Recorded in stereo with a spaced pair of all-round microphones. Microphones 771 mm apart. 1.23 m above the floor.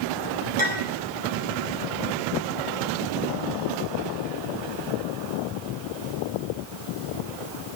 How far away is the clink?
About 2.5 m.